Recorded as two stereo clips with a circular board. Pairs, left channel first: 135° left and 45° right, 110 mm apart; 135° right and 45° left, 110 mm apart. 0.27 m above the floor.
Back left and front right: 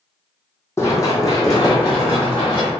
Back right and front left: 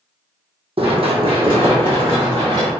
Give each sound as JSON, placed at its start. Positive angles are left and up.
{"t": 0.8, "sound": "running footsteps", "azimuth_deg": 70, "distance_m": 0.8}